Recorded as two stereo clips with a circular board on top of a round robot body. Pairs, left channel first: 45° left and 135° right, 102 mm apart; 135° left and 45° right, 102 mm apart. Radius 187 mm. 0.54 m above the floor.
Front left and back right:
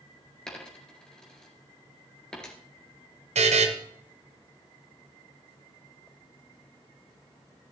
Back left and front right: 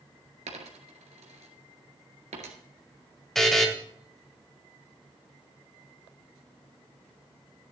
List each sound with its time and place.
0.5 s a dropped coin: 40° right, 1.7 m
3.4 s a buzzer: 140° right, 1.3 m